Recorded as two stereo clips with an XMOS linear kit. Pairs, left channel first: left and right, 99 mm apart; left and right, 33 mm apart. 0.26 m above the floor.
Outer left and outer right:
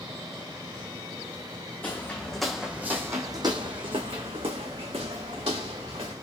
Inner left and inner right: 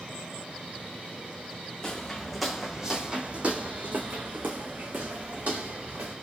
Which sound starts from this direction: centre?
Footsteps, at 1.8 s.